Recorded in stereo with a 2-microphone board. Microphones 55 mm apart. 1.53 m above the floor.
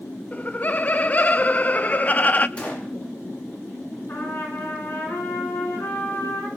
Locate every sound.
0.3 s laughter: 30° left (ahead or behind), 0.5 m
2.6 s a gunshot: 20° left (ahead or behind), 4 m
4.1 s a trumpet: 45° left (ahead or behind), 7.5 m